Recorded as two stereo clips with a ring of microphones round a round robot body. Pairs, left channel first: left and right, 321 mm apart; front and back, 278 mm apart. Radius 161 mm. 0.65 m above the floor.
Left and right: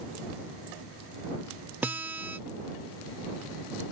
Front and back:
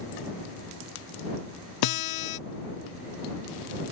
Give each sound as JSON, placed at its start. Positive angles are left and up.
{"t": 1.8, "sound": "a guitar", "azimuth_deg": -5}